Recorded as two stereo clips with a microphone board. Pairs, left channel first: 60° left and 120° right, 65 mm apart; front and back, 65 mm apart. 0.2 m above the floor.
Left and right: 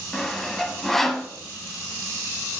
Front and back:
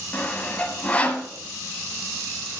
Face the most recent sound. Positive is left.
turn(degrees=-20)